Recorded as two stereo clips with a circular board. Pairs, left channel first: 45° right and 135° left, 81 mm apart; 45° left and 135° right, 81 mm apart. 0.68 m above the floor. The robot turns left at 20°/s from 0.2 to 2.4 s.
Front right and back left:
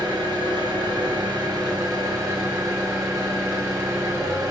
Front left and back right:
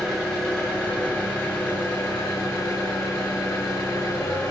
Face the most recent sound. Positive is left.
turn(degrees=95)